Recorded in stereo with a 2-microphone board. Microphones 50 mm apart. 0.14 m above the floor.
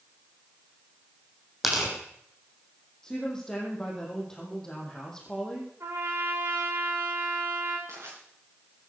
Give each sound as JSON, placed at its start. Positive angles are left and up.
{"t": 1.6, "sound": "tearing paper", "side_deg": -5, "distance_m": 6.5}
{"t": 3.0, "sound": "a woman speaking", "side_deg": 10, "distance_m": 5.5}
{"t": 5.8, "sound": "a trumpet", "side_deg": -75, "distance_m": 8.0}
{"t": 7.9, "sound": "crushing", "side_deg": -80, "distance_m": 9.0}